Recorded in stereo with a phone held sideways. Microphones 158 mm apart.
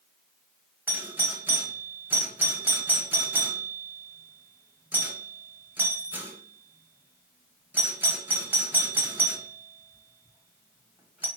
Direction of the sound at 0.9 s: 10° right (ahead or behind).